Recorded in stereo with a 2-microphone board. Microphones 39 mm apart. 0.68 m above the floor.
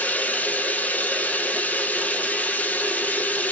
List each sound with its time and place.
0.0 s running water: 45° left (ahead or behind), 1.8 m